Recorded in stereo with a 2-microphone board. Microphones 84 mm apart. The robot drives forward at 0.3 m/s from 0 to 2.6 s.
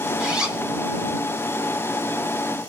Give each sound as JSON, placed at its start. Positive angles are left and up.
{"t": 0.2, "sound": "a zipper", "side_deg": -10, "distance_m": 1.4}